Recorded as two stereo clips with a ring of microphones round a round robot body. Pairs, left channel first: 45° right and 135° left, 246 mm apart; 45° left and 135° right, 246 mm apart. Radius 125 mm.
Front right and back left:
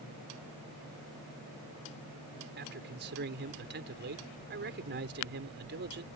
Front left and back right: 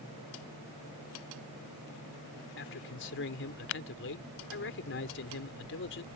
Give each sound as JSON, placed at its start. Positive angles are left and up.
{"t": 2.6, "sound": "a man speaking", "azimuth_deg": 90}